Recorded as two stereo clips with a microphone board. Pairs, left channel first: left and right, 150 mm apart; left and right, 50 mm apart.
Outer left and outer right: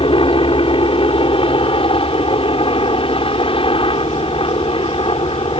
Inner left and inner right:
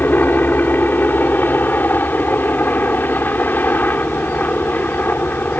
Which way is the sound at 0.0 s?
35° left (ahead or behind).